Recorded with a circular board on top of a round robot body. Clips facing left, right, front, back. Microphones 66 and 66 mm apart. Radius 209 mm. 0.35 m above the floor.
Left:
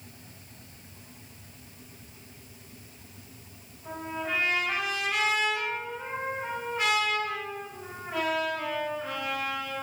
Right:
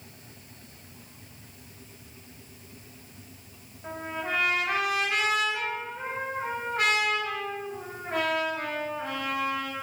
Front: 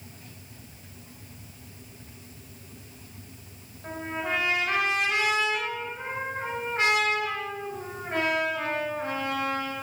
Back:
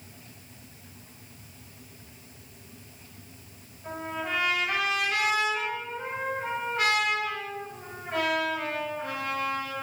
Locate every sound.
3.8 s a trumpet: 60° right, 8 m